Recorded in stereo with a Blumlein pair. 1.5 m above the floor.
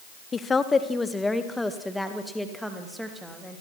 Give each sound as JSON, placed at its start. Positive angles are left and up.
{"t": 0.3, "sound": "a woman speaking", "azimuth_deg": 20, "distance_m": 1.1}